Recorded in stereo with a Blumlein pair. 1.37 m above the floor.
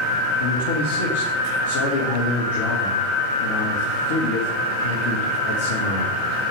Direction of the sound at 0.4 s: 55° left.